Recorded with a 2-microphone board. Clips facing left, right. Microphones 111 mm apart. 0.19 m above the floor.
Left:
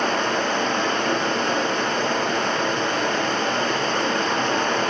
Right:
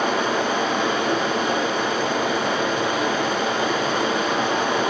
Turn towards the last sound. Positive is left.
turn(degrees=-5)  # may be behind; listen again after turning